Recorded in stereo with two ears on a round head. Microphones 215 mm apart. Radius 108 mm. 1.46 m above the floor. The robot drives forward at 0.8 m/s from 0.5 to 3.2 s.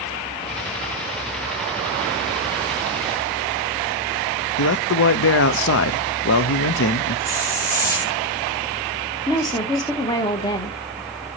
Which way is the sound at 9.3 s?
15° left (ahead or behind).